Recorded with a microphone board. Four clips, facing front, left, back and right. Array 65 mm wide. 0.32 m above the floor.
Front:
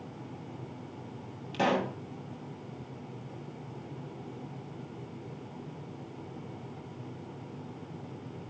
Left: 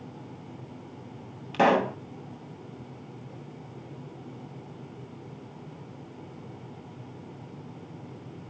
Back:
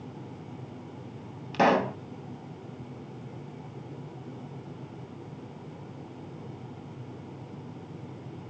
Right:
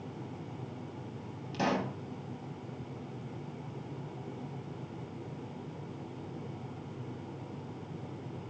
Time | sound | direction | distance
1.5 | a pop | 130° left | 0.6 m